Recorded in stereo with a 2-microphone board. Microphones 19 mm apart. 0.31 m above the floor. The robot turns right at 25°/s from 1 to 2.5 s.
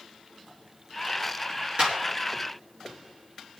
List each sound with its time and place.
1.8 s a clap: 60° right (ahead or behind), 3.5 m; by 2.0 s 55° right (ahead or behind), 3.5 m